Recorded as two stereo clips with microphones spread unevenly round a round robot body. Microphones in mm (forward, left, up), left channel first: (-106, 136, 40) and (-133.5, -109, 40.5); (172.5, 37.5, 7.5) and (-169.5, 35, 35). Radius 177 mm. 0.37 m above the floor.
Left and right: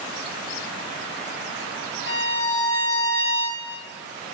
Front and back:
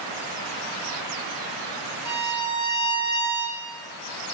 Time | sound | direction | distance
2.0 | a violin | 130° left | 3.5 m